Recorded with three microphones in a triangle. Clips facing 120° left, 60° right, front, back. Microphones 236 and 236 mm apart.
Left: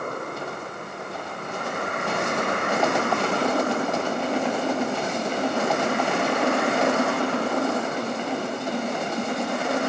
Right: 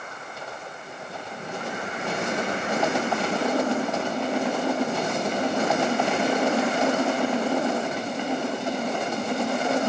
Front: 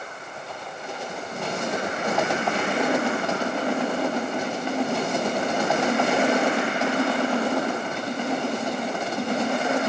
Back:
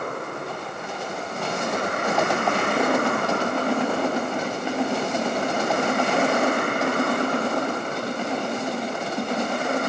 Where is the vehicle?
150° left; by 9.9 s 140° left.